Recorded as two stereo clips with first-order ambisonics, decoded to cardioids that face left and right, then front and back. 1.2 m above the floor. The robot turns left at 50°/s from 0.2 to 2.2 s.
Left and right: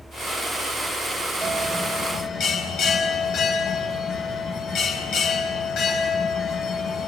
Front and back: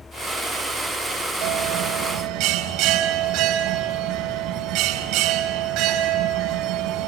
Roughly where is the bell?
Behind.